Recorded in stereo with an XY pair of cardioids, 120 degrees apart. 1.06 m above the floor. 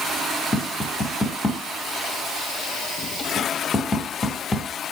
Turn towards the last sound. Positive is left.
turn(degrees=25)